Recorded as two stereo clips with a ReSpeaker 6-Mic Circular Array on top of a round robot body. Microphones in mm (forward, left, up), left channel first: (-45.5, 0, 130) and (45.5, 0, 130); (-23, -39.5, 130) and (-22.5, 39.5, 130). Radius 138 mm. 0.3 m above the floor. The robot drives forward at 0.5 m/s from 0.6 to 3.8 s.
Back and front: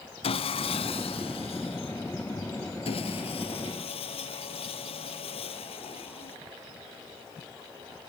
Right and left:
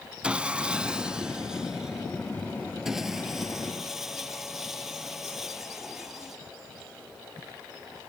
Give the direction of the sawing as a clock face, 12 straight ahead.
6 o'clock.